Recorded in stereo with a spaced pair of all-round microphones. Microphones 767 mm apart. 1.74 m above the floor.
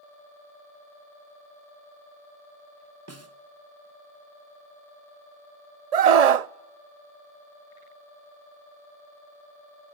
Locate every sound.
3.1 s a snare drum: 20° right (ahead or behind), 0.9 m
5.9 s a scream: 60° right (ahead or behind), 0.6 m